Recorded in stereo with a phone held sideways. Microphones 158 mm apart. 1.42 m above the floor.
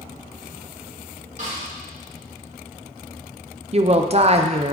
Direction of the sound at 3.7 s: 40° right (ahead or behind).